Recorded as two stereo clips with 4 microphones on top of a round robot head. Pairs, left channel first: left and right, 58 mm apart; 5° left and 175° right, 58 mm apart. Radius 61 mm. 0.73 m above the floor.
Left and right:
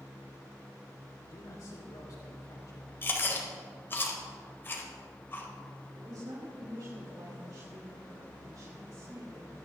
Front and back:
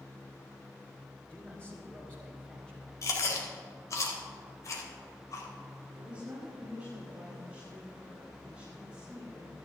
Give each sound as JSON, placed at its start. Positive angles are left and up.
{"t": 1.2, "sound": "a man speaking", "azimuth_deg": 75, "distance_m": 2.5}
{"t": 3.0, "sound": "chewing", "azimuth_deg": 40, "distance_m": 2.5}
{"t": 5.9, "sound": "a woman speaking", "azimuth_deg": -105, "distance_m": 5.5}